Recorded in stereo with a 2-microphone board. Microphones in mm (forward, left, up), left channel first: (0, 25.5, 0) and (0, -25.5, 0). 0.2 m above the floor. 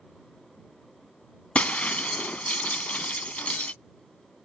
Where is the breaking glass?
30° left (ahead or behind).